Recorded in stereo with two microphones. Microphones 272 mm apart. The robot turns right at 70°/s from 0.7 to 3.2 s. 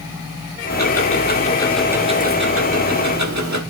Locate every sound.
0.7 s ticking: 105° left, 1.3 m; by 3.6 s 80° right, 1.3 m